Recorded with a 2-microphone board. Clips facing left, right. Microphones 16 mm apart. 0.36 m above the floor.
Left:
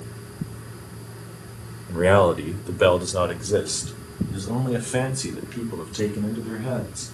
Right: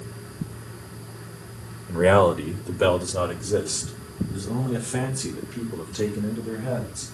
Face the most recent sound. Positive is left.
turn(degrees=45)  # may be behind; listen again after turning